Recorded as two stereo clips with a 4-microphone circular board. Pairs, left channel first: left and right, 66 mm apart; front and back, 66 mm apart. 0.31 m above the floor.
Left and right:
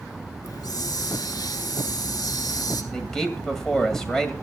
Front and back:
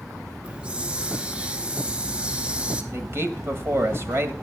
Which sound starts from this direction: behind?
A man speaking, at 2.9 s.